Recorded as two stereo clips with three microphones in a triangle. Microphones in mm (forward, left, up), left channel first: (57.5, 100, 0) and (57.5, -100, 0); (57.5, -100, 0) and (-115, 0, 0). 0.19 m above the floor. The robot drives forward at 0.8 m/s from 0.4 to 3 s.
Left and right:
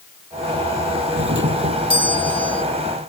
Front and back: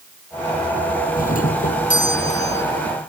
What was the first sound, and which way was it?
A doorbell, 75° right.